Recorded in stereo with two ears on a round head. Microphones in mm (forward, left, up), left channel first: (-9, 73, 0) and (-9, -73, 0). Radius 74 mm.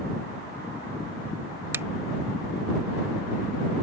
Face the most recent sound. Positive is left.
turn(degrees=-15)  # may be behind; listen again after turning